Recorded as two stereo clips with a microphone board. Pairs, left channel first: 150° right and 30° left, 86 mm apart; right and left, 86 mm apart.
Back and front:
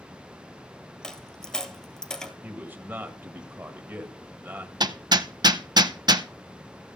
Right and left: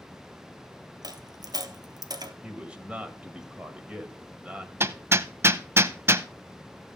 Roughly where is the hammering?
Ahead left.